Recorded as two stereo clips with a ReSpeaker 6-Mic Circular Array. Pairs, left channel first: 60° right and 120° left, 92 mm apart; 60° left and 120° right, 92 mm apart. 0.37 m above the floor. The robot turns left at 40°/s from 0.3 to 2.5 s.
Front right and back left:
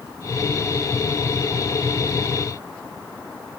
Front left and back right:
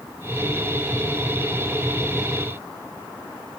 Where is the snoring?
No snoring in this recording.